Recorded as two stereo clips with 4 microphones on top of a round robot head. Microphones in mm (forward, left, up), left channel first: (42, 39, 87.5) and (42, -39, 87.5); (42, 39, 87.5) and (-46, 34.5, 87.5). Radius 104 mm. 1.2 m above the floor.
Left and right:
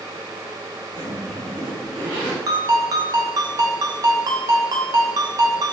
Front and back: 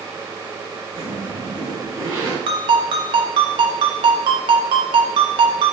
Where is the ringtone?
140° right, 1.0 m.